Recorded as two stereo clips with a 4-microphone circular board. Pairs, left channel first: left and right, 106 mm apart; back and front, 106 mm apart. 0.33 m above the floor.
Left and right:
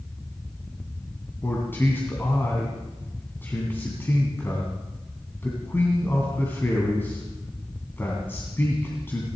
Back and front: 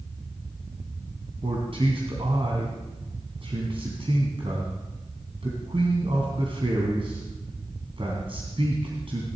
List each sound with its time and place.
1.4 s a man speaking: 20° left, 2.5 m